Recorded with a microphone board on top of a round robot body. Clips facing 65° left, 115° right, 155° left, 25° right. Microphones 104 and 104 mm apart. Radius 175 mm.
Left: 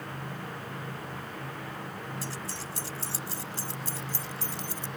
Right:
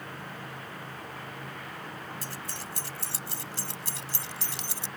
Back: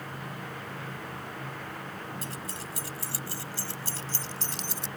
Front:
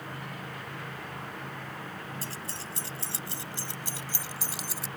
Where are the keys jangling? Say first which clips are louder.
Left 2 dB, back 1 dB; 80° right; by 4.9 s 110° right.